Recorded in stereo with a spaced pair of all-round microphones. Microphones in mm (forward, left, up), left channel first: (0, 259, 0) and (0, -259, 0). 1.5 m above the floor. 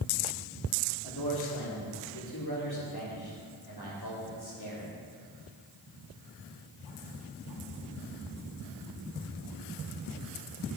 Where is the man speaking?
50° left (ahead or behind), 3.5 m.